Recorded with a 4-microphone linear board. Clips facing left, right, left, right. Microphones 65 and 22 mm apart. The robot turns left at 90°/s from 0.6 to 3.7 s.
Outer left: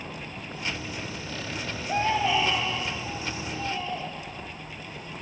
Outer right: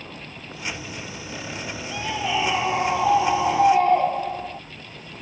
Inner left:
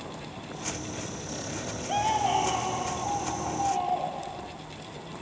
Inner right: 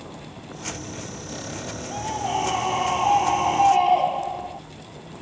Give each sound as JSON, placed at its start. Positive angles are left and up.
{"t": 1.9, "sound": "a scream", "azimuth_deg": 35}